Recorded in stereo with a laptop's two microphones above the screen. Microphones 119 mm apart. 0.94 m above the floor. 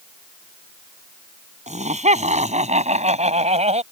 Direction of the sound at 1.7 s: 75° right (ahead or behind).